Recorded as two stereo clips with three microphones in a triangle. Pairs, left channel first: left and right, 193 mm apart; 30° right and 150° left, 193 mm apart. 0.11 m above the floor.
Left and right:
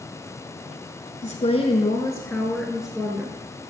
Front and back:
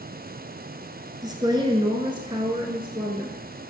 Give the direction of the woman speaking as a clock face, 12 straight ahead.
9 o'clock.